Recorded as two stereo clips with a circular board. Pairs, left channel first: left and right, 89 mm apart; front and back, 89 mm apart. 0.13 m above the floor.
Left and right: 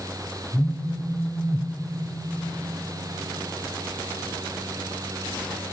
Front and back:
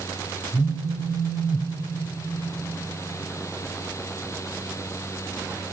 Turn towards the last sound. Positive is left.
turn(degrees=20)